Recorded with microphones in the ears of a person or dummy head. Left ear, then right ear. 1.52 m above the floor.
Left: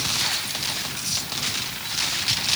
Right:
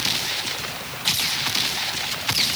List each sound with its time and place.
Only background noise.